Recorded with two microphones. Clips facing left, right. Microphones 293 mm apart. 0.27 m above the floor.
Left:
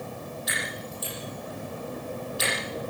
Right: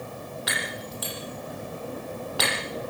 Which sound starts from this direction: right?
Breaking glass, at 0.5 s.